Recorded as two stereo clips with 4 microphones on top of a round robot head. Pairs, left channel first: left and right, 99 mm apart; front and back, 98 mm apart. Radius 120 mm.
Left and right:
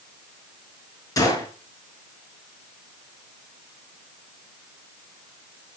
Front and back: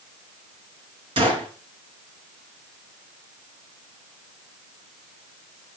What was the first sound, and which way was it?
A gunshot, 145° left.